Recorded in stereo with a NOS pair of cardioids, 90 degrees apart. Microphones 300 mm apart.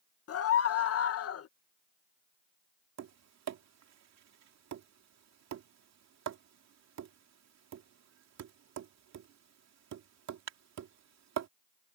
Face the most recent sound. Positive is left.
turn(degrees=-65)